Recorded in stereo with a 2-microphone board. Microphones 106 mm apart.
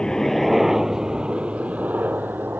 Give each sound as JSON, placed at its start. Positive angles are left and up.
{"t": 0.0, "sound": "a helicopter", "side_deg": 5}